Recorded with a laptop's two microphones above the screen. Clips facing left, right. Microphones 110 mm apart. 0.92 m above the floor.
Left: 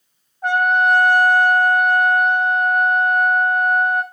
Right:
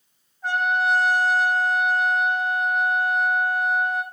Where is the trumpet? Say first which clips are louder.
Left 6 dB; 60° left (ahead or behind), 3 m.